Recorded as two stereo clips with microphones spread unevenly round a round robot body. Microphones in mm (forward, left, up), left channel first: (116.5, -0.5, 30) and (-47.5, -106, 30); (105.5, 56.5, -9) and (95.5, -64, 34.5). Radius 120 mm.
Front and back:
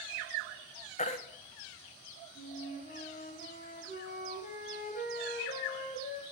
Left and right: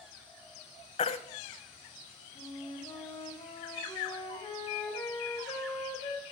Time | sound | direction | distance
1.0 | a baby crying | 90° left | 0.7 m
2.4 | a flute | 70° left | 2.5 m